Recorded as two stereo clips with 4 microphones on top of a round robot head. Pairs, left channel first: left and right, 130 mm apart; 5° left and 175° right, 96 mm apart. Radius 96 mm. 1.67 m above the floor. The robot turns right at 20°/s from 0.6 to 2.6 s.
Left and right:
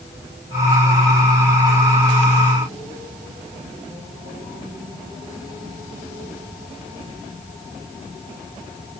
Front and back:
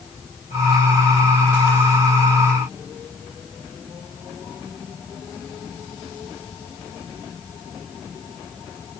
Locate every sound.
Only background noise.